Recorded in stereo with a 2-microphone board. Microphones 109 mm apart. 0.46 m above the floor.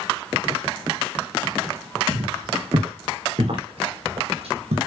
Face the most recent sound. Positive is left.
turn(degrees=-75)  # may be behind; listen again after turning